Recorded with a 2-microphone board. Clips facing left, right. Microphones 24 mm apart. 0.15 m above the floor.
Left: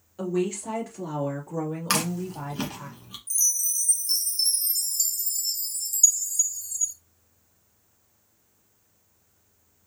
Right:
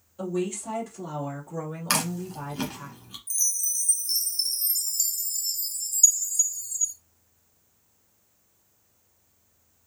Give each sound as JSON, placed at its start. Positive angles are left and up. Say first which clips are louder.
{"t": 0.2, "sound": "a woman speaking", "louder": "left 2 dB", "side_deg": 35, "distance_m": 2.5}
{"t": 1.9, "sound": "chewing", "louder": "right 1 dB", "side_deg": 10, "distance_m": 1.6}
{"t": 3.3, "sound": "a chime", "louder": "left 2 dB", "side_deg": 5, "distance_m": 2.5}